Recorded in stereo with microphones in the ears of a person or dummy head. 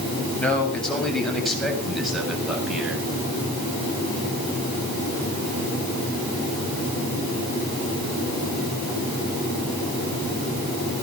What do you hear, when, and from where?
0.4 s a man speaking: 5° left (ahead or behind), 7.5 m; by 3.0 s 5° right (ahead or behind), 8 m